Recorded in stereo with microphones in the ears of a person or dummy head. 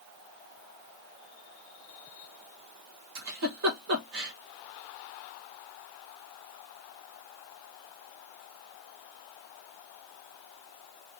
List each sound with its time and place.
3.1 s a giggle: 70° right (ahead or behind), 1.4 m